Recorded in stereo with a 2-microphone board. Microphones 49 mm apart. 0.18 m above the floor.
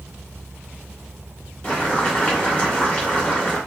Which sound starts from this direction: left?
Boiling, at 1.6 s.